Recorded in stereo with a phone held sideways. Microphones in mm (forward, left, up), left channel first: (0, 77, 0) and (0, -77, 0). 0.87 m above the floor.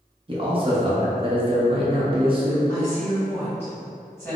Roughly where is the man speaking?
Right.